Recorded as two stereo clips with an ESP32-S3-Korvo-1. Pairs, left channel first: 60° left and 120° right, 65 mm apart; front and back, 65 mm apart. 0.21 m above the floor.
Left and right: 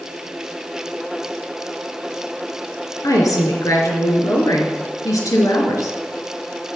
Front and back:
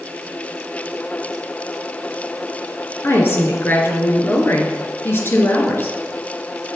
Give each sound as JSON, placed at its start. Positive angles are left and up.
{"t": 3.0, "sound": "a woman speaking", "azimuth_deg": 50, "distance_m": 4.0}